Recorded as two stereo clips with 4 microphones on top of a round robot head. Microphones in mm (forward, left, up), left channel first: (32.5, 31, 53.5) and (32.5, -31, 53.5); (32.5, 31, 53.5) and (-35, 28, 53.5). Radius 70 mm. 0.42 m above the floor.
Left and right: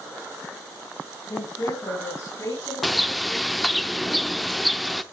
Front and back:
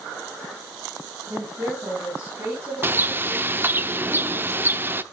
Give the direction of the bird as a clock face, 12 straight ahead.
6 o'clock.